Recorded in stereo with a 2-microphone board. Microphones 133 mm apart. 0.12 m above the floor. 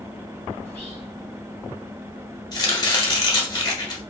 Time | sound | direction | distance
0.6 | whispering | 15° left (ahead or behind) | 1.4 m
2.5 | chopping | 35° left (ahead or behind) | 1.1 m